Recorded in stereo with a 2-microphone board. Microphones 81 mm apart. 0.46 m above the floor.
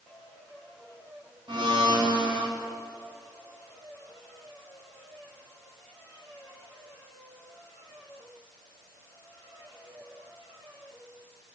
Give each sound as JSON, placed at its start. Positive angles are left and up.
{"t": 1.5, "sound": "a blender", "side_deg": -70, "distance_m": 5.0}